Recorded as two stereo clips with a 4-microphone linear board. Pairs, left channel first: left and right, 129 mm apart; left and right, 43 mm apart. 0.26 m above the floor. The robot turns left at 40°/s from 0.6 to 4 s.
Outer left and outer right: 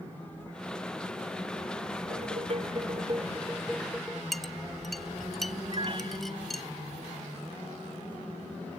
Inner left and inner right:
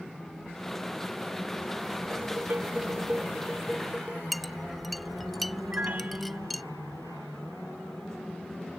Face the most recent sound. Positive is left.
turn(degrees=-45)  # may be behind; listen again after turning